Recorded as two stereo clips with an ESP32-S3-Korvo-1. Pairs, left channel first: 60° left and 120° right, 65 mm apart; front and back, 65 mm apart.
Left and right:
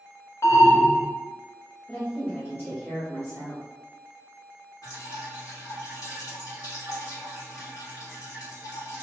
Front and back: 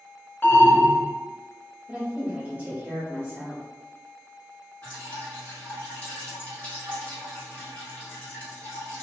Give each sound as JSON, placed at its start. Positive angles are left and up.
{"t": 0.4, "sound": "an alarm", "azimuth_deg": 50, "distance_m": 0.7}
{"t": 1.9, "sound": "a woman speaking", "azimuth_deg": 125, "distance_m": 0.9}
{"t": 4.8, "sound": "dripping", "azimuth_deg": 60, "distance_m": 1.2}